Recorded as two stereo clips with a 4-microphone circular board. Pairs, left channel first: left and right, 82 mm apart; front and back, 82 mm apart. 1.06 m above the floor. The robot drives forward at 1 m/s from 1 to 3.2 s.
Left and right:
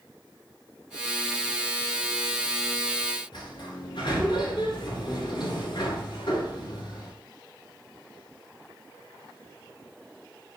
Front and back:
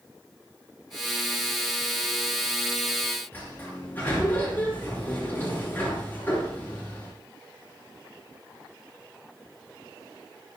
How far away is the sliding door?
About 8.5 m.